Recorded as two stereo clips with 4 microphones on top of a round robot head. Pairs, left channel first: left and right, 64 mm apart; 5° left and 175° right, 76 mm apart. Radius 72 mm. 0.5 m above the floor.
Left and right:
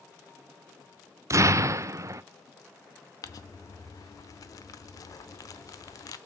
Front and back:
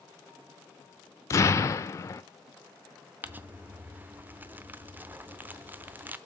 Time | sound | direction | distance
1.3 | an explosion | 50° right | 0.7 m
3.2 | crumpling | 115° left | 0.7 m